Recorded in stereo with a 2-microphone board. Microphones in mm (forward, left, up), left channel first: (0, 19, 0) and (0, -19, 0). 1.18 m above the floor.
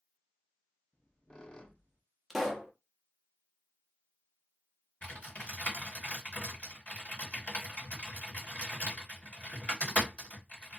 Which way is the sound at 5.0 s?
40° left (ahead or behind).